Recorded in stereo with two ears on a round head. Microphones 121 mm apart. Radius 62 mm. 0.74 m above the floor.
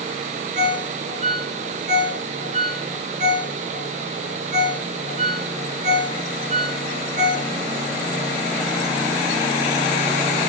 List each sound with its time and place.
0.6 s a ringtone: 60° right (ahead or behind), 4.5 m